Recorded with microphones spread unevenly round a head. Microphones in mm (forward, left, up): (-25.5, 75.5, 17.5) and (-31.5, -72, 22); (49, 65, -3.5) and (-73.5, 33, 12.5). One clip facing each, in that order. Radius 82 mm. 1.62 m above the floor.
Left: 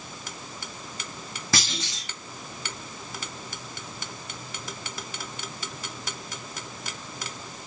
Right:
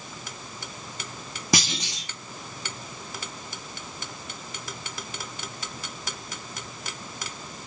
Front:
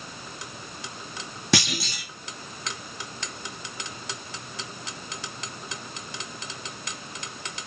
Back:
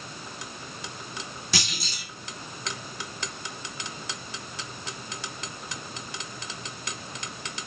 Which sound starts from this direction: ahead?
A clunk, at 1.5 s.